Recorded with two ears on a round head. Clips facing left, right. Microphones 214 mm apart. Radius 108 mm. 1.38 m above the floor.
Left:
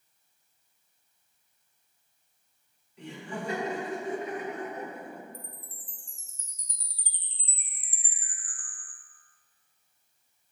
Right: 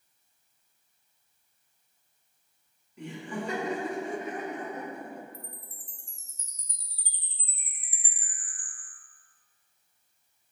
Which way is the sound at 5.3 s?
15° right (ahead or behind).